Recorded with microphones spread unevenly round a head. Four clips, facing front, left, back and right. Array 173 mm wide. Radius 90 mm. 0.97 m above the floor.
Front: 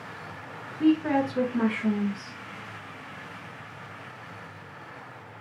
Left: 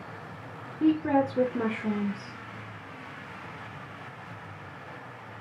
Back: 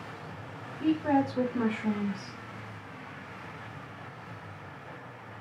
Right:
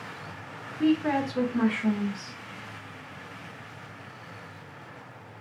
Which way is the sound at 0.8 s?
50° right.